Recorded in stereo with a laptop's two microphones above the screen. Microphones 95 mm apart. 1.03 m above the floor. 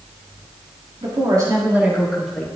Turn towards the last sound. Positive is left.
turn(degrees=5)  # may be behind; listen again after turning